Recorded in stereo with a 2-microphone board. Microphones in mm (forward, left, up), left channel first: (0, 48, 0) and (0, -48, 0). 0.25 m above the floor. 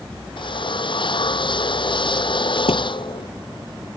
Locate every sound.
0.4 s a drill: 60° left (ahead or behind)
2.7 s a thud: 85° left